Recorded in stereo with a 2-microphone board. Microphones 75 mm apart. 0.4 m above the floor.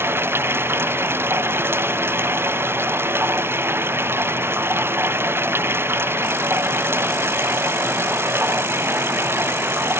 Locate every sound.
0.0 s running water: 30° right (ahead or behind)